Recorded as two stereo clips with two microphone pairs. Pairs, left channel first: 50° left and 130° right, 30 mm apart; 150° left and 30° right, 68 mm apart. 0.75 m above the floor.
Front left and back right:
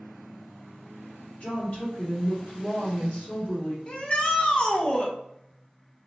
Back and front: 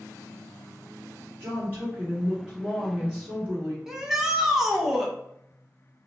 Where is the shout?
45° left, 0.5 m.